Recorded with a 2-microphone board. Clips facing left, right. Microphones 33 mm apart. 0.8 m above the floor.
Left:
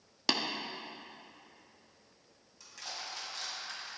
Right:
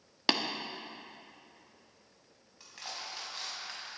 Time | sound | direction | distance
0.3 | tapping | 20° right (ahead or behind) | 0.9 m
2.6 | crushing | 25° right (ahead or behind) | 4.5 m